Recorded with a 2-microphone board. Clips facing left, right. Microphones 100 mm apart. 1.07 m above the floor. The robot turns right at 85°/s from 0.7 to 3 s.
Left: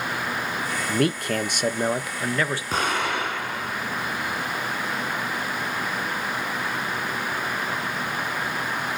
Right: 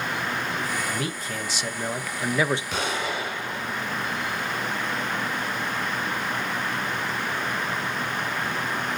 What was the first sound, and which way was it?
A man speaking, 60° left.